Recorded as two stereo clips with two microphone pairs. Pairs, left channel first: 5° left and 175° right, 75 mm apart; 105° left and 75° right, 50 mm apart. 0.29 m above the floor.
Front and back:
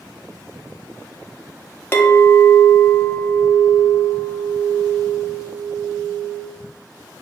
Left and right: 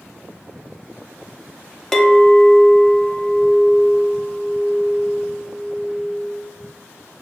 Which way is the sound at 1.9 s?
35° left.